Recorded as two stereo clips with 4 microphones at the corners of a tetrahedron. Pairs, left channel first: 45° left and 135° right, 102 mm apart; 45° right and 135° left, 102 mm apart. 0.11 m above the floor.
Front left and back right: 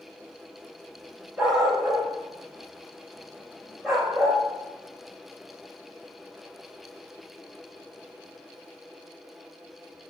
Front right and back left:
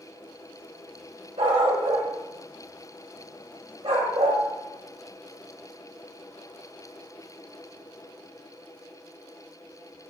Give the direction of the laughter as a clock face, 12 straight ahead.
I don't hear laughter.